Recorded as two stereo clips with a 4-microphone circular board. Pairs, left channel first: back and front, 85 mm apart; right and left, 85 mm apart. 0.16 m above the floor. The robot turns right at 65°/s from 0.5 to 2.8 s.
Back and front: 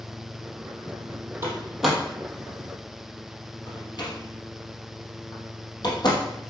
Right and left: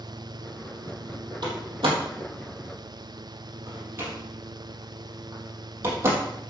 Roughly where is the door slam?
Ahead left.